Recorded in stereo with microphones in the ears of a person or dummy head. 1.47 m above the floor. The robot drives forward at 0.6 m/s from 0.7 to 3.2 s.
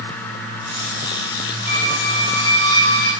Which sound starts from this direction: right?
A squeak, at 1.7 s.